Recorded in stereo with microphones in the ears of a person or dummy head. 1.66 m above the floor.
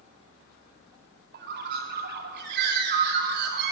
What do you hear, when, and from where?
1.3 s a bird: 60° right (ahead or behind), 2.5 m